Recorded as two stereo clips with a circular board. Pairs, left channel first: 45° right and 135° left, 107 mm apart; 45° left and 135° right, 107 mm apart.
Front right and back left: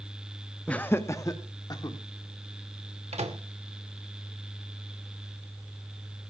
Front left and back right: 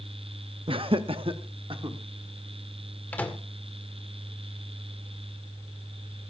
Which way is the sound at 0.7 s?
125° right.